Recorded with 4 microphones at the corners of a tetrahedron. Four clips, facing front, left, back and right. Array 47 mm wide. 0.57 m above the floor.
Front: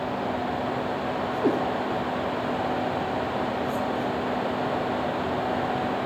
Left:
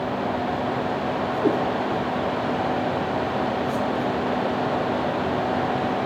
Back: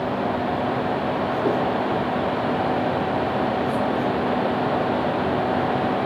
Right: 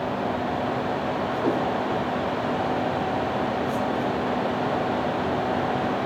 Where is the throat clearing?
No throat clearing in this recording.